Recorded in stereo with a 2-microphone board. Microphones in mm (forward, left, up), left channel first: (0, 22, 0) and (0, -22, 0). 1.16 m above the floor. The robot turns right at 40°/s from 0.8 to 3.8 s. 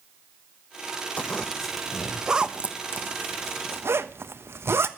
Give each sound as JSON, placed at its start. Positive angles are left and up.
{"t": 1.2, "sound": "a zipper", "side_deg": 25, "distance_m": 1.1}